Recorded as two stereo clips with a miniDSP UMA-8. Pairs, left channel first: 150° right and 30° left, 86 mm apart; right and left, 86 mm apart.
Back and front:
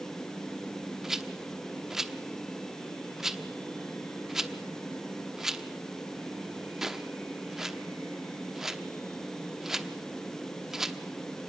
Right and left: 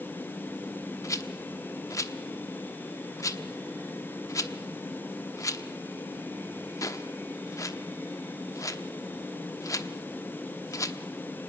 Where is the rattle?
55° right, 1.0 m.